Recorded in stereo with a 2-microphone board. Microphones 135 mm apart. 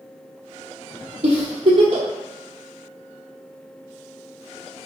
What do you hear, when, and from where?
1.2 s a giggle: 45° right (ahead or behind), 0.9 m